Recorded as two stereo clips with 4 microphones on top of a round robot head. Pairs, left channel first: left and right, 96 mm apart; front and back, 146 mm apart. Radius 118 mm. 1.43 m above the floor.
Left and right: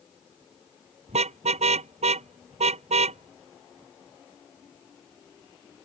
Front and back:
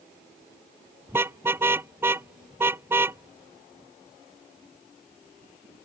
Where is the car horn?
100° right.